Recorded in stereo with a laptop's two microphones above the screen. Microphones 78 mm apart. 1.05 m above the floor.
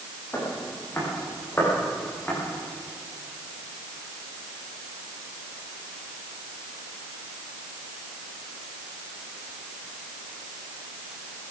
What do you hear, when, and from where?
0.3 s footsteps: 30° left (ahead or behind), 5 m; by 2.4 s 20° left (ahead or behind), 6 m